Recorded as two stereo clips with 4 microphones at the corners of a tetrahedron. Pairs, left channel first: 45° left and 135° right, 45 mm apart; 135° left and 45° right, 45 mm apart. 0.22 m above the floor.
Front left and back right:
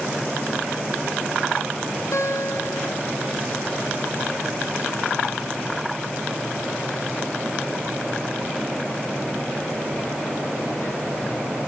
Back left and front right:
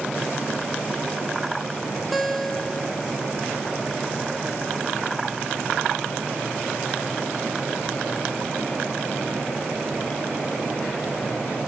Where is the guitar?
45° left, 0.8 m.